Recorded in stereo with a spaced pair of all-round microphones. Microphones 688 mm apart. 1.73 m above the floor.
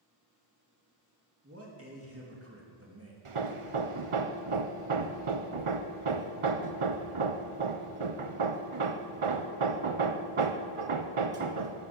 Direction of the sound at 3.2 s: 50° right (ahead or behind).